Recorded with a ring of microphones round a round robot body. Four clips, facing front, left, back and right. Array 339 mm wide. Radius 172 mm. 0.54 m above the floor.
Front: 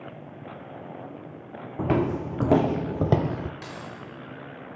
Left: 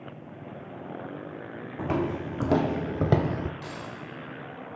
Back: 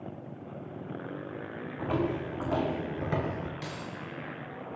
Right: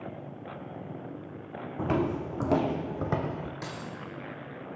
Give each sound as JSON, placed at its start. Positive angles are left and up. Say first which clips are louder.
{"t": 1.8, "sound": "footsteps", "louder": "even, front 6 dB", "azimuth_deg": -10, "distance_m": 1.3}
{"t": 3.6, "sound": "keys jangling", "louder": "left 1 dB, front 1 dB", "azimuth_deg": -75, "distance_m": 5.5}